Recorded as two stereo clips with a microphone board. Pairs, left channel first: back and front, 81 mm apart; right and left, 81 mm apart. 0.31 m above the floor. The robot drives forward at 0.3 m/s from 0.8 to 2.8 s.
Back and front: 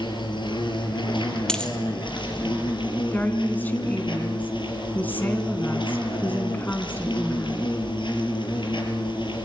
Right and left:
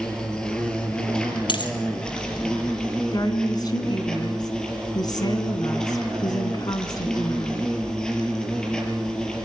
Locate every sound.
0.0 s an insect: 170° right, 4 m
1.5 s a dropped coin: 100° right, 2.5 m
3.1 s a woman speaking: 115° right, 3 m